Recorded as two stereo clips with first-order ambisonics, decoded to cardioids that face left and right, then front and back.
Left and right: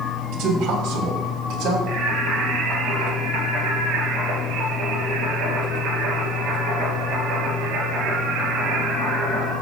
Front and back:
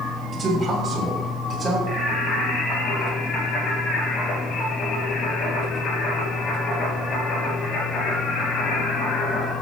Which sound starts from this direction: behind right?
A man speaking, at 0.3 s.